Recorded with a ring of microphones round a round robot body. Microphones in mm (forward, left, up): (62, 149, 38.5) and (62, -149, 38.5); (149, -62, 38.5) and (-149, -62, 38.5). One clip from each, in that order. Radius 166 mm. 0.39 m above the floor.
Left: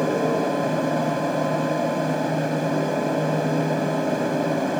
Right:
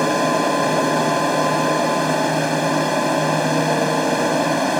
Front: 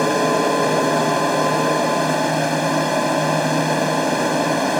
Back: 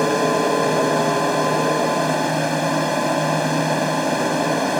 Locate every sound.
0.0 s an aircraft: 80° right